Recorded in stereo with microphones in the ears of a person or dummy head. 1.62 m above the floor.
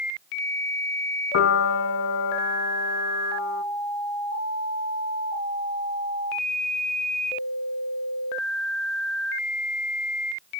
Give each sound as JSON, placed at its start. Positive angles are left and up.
{"t": 1.3, "sound": "a piano", "side_deg": 65, "distance_m": 0.6}